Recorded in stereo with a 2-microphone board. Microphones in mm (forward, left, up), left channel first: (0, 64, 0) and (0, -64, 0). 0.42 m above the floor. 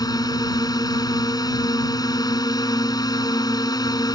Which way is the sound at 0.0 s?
30° left (ahead or behind).